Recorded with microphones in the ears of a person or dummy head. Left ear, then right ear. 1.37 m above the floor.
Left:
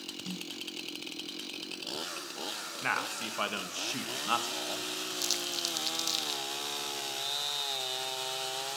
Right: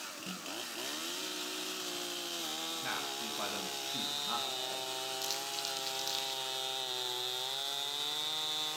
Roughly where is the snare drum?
Left.